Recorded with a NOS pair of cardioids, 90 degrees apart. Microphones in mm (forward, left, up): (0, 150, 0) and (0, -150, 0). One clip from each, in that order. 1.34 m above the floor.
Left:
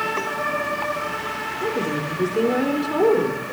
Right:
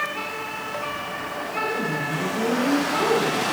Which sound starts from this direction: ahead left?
A woman speaking, at 1.6 s.